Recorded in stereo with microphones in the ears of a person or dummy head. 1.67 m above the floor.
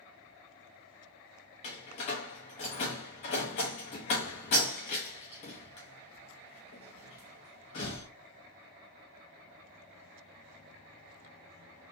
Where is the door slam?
35° left (ahead or behind), 0.7 m.